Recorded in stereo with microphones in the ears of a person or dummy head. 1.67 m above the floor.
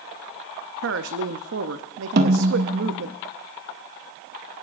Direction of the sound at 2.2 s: 50° right (ahead or behind).